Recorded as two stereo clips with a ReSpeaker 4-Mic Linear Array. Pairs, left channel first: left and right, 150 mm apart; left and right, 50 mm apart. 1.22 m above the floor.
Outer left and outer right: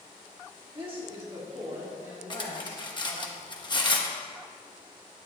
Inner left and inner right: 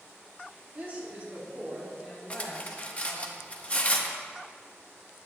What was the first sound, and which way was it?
A woman speaking, 40° right (ahead or behind).